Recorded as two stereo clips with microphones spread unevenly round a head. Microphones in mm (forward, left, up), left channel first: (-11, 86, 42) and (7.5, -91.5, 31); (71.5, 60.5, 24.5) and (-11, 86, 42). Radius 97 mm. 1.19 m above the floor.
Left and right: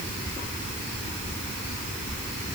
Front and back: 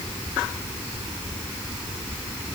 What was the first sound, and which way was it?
Only background noise.